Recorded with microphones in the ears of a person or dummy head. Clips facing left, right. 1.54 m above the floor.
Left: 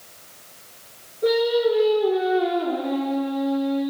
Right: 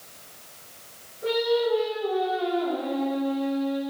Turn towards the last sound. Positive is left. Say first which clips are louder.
# left 4 dB
turn(degrees=50)  # may be behind; listen again after turning